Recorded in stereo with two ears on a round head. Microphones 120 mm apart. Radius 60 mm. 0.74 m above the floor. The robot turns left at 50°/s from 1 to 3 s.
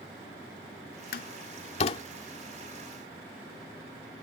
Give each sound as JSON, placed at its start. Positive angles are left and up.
{"t": 1.1, "sound": "a door slam", "side_deg": 70}